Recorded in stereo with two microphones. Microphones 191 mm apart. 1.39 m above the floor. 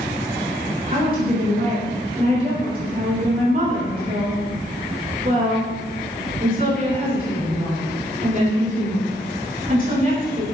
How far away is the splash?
I don't hear a splash.